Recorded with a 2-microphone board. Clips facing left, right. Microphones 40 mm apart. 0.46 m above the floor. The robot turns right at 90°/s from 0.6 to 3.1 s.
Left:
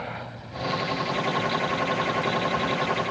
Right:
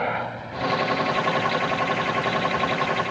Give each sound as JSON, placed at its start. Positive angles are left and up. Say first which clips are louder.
{"t": 0.0, "sound": "a helicopter", "louder": "right 9 dB", "side_deg": -40}